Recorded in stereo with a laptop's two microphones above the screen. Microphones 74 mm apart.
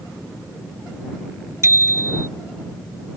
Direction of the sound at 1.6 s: 45° right (ahead or behind).